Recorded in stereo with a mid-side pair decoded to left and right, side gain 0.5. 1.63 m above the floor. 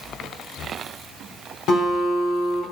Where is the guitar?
65° left, 2 m.